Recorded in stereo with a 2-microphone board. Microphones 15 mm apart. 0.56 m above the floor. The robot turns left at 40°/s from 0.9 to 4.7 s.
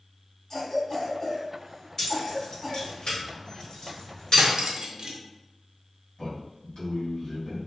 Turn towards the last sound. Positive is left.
turn(degrees=65)  # may be behind; listen again after turning